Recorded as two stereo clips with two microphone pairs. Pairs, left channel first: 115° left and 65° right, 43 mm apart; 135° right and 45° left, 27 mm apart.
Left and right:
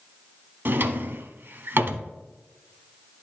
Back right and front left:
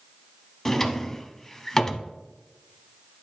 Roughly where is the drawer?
Ahead right.